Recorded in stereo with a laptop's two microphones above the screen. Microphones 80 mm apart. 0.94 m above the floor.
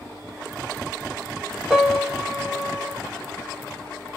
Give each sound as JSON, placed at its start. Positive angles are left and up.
{"t": 1.7, "sound": "a piano", "side_deg": -10, "distance_m": 1.2}